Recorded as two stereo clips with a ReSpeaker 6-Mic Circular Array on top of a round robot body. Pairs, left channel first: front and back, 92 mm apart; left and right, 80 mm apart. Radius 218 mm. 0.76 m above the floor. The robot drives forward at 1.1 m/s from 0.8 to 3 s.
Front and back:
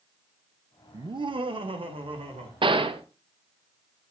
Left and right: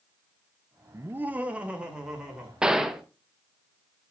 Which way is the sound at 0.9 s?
140° right.